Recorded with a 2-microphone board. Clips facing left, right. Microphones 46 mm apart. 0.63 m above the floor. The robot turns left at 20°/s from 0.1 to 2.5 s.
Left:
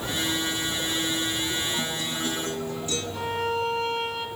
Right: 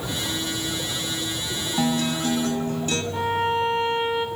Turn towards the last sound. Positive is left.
turn(degrees=-30)  # may be behind; listen again after turning